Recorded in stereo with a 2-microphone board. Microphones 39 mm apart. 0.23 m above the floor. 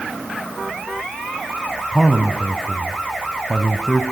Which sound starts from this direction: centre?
A man speaking, at 1.9 s.